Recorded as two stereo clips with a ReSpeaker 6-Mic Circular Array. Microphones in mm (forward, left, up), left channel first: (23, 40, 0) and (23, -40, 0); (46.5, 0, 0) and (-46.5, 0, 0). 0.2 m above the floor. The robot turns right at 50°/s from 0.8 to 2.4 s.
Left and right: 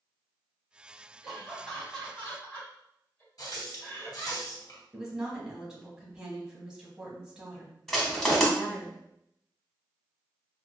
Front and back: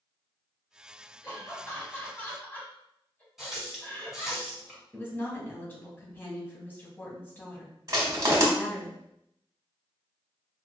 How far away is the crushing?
About 1.0 m.